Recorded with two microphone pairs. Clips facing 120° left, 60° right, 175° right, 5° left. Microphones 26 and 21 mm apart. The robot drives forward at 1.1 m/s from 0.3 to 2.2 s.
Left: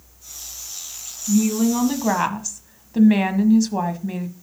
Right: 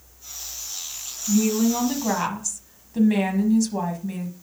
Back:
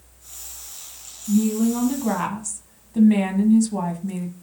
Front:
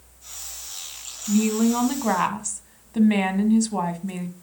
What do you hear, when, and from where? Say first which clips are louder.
1.3 s a woman speaking: left 2 dB, even; 30° left, 1.8 m; by 4.3 s 60° left, 1.2 m